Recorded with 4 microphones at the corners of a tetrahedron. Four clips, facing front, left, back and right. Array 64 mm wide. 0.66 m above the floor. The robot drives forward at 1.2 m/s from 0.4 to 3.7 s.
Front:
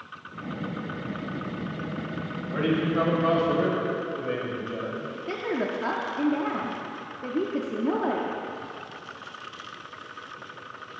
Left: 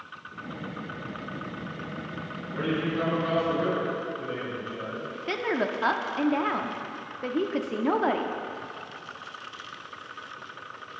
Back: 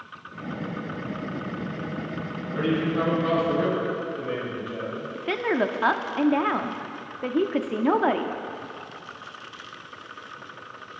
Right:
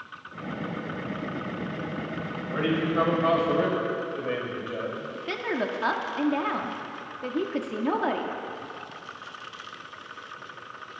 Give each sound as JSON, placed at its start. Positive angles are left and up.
{"t": 2.5, "sound": "a man speaking", "azimuth_deg": -50, "distance_m": 4.5}
{"t": 5.2, "sound": "a woman speaking", "azimuth_deg": 175, "distance_m": 0.8}